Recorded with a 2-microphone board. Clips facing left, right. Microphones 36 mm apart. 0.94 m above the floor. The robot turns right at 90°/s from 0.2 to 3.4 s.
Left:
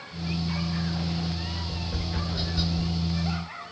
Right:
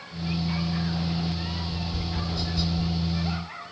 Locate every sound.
1.6 s tapping: 80° left, 2.0 m; by 2.9 s 15° right (ahead or behind), 2.0 m